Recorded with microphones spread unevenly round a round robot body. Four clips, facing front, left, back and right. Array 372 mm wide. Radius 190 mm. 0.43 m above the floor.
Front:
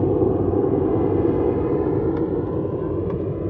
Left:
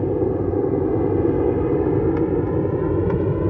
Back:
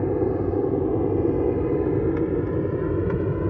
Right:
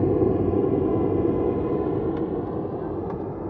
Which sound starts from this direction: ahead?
An aircraft, at 0.0 s.